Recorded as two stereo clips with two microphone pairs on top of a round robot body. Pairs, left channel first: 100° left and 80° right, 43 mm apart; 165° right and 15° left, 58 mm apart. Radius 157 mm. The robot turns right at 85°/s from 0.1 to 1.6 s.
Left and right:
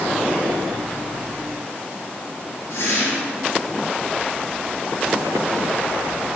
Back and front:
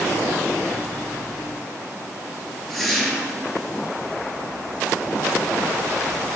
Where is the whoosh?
110° left, 3 m.